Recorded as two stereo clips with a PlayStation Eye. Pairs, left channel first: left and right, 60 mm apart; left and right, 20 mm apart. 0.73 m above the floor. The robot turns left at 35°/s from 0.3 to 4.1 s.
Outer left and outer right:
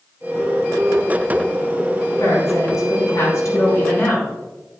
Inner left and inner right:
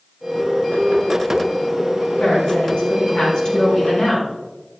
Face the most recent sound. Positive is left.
turn(degrees=40)